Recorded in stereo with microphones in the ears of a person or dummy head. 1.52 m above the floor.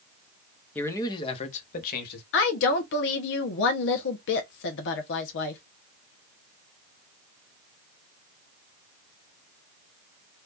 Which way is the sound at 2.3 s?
65° left (ahead or behind).